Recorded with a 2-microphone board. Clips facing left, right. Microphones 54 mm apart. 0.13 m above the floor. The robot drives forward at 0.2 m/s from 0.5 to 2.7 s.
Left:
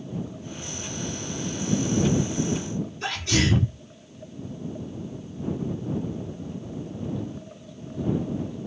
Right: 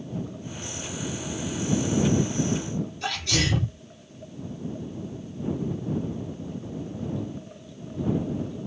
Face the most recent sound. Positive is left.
turn(degrees=25)  # may be behind; listen again after turning